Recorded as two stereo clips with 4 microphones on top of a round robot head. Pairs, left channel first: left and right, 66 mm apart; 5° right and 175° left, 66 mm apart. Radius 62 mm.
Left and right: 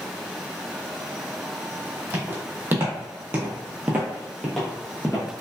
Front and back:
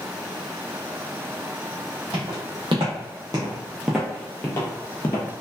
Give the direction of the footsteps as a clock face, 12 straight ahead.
5 o'clock.